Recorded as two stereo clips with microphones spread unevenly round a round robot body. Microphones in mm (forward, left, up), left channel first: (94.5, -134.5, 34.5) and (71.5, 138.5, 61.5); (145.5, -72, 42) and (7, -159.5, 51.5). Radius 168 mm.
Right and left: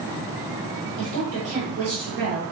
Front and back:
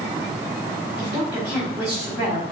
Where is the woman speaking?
130° left, 1.5 m.